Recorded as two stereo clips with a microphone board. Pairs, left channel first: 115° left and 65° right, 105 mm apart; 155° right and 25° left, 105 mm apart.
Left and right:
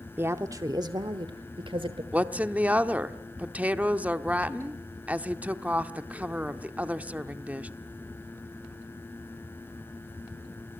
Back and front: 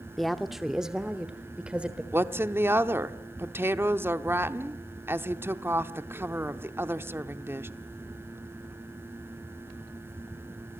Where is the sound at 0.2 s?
70° right, 0.7 m; by 2.0 s 55° right, 1.4 m.